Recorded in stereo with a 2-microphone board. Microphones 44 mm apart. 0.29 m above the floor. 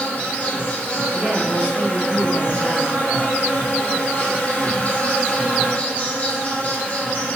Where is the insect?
40° left (ahead or behind), 0.8 m.